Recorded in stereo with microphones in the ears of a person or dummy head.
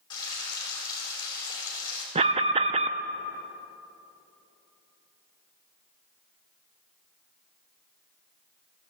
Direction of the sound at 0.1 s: 20° left (ahead or behind).